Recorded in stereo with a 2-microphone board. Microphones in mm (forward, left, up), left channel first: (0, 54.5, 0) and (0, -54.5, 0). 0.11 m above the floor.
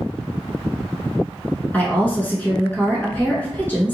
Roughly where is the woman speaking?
Centre.